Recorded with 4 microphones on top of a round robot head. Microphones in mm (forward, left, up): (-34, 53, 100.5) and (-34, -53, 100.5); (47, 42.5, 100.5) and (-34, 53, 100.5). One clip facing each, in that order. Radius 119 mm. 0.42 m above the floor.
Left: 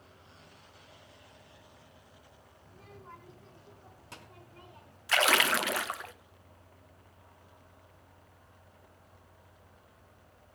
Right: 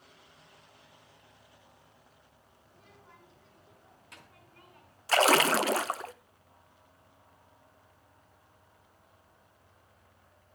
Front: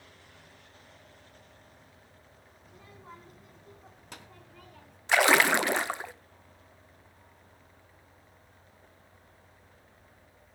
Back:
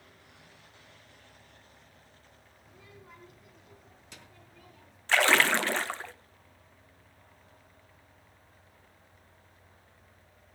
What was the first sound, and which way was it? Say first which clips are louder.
A child speaking: left 7 dB, front 3 dB; 50° left.